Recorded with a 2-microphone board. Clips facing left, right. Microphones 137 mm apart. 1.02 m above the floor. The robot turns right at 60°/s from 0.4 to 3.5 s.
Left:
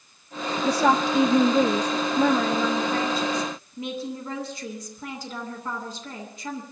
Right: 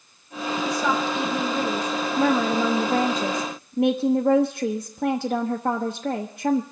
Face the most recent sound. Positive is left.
turn(degrees=-95)